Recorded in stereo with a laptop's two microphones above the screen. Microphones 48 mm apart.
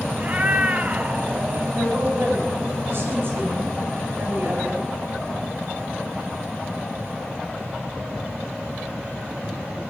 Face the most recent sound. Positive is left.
turn(degrees=-45)  # may be behind; listen again after turning